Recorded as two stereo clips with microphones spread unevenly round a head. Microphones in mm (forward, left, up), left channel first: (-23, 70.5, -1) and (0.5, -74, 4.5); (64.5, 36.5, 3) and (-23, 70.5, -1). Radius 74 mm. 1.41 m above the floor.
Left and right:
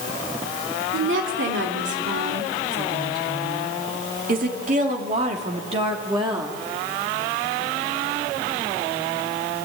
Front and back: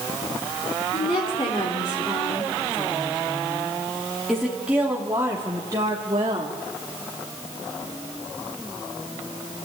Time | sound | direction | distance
0.9 | a woman speaking | 80° right | 3.5 m